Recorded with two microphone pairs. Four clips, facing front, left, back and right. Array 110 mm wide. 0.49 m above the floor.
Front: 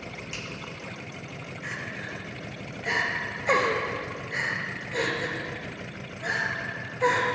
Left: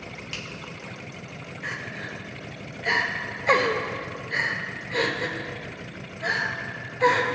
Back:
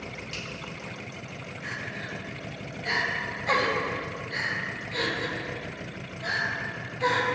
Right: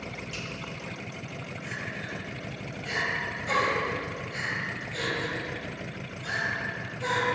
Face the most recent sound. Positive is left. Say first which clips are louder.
# left 4 dB, even
turn(degrees=75)